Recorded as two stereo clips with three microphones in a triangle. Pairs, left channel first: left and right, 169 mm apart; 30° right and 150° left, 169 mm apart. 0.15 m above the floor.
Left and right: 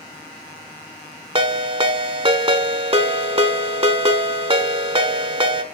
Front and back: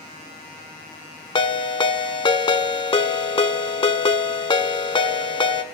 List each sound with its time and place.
1.4 s a ringtone: 65° right, 0.5 m